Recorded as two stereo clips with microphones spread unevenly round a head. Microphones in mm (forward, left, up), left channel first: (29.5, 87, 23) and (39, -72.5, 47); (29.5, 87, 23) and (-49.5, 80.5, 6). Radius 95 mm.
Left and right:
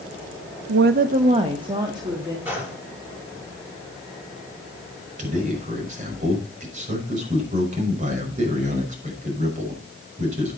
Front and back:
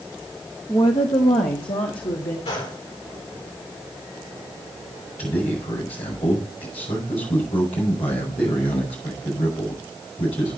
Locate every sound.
0.7 s a woman speaking: 75° right, 0.5 m; by 2.4 s 15° right, 2 m
2.5 s a gunshot: 10° right, 7.5 m
5.2 s a man speaking: 40° right, 6 m